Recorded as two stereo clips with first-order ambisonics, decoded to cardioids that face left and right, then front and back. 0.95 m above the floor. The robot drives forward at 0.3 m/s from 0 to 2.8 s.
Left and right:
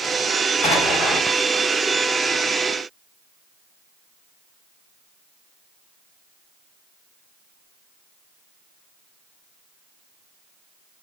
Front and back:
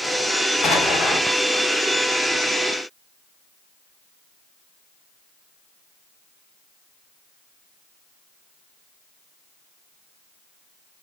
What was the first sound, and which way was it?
An explosion, 50° left.